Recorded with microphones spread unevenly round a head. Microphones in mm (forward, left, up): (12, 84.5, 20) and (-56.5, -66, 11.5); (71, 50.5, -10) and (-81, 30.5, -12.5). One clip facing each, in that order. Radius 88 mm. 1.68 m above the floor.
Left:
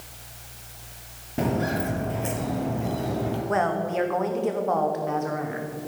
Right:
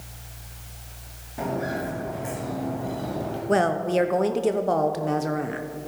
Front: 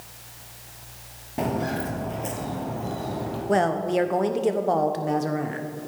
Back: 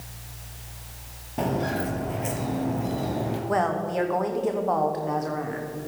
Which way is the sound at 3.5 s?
60° right.